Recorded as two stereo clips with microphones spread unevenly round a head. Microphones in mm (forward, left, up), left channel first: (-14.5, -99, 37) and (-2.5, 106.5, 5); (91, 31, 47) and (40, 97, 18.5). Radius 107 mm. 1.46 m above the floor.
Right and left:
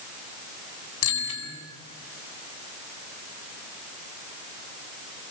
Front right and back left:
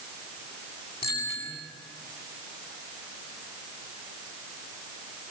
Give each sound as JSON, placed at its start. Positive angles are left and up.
{"t": 1.0, "sound": "a bicycle bell", "azimuth_deg": -110, "distance_m": 8.0}